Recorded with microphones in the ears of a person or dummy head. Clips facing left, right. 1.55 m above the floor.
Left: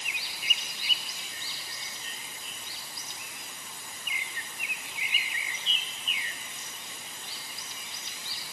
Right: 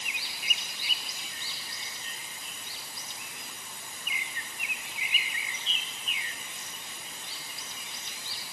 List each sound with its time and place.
Only background noise.